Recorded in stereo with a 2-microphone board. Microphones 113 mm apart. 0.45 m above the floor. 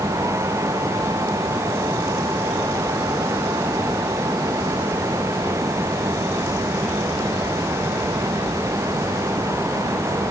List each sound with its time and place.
Only background noise.